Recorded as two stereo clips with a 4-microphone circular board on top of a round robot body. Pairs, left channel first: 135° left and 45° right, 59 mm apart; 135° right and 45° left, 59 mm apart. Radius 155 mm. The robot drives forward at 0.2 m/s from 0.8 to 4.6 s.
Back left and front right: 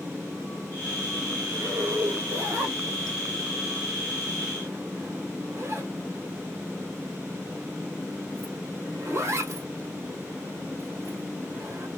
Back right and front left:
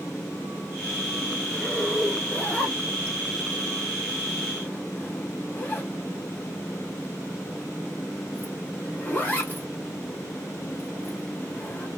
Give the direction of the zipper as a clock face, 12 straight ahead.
2 o'clock.